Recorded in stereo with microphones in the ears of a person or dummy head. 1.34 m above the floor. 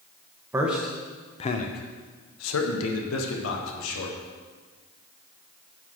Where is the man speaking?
10° right (ahead or behind), 1.1 m; by 4.2 s 80° left, 2.5 m.